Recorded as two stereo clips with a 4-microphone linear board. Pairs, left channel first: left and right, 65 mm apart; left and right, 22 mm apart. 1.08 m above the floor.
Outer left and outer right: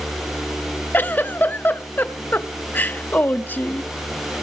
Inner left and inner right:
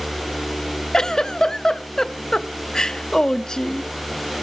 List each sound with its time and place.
0.9 s a giggle: 30° left (ahead or behind), 0.5 m